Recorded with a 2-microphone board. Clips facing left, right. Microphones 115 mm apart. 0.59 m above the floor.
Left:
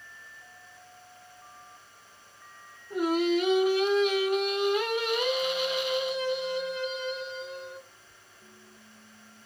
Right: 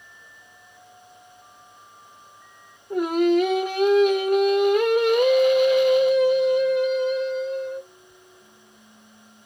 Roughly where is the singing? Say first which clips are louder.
Right 6 dB; right.